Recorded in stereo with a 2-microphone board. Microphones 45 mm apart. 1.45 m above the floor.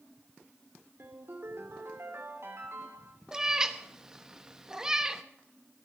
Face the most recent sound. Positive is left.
turn(degrees=-15)  # may be behind; listen again after turning